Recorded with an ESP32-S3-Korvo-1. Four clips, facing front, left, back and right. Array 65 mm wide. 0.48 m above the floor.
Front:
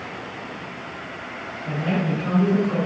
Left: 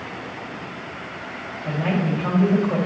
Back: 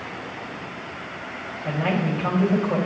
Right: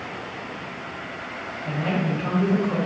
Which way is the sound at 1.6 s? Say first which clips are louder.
Left 2 dB, even; 165° left.